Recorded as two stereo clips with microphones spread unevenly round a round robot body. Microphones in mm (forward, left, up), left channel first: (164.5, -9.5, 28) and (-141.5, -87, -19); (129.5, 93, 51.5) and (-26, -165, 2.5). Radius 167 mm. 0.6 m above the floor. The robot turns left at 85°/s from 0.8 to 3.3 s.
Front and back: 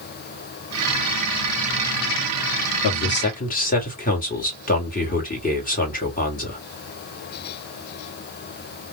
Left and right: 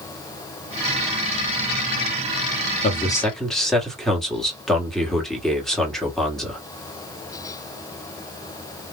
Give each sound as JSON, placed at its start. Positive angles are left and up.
{"t": 2.8, "sound": "a man speaking", "azimuth_deg": -5, "distance_m": 1.4}